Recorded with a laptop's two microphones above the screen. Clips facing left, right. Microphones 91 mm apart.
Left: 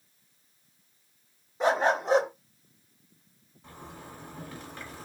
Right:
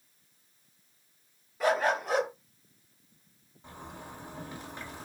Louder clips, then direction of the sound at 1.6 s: Left 2 dB; 25° left (ahead or behind).